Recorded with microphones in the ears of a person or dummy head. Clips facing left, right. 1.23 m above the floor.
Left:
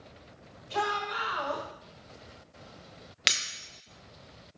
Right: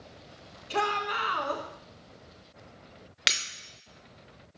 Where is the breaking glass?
5° right (ahead or behind), 0.9 m.